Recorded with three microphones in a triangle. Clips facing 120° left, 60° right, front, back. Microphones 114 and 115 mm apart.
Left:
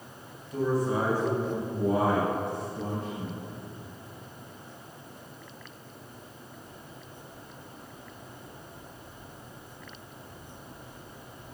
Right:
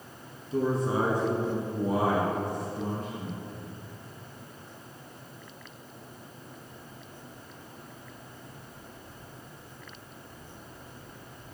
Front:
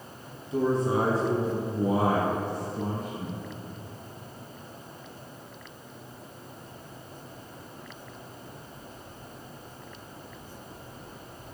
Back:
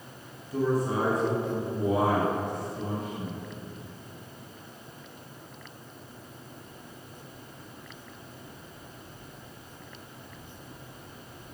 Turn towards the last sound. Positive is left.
turn(degrees=45)